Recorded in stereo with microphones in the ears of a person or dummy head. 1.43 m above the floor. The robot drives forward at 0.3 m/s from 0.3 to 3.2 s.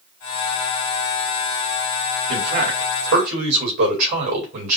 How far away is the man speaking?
About 3 m.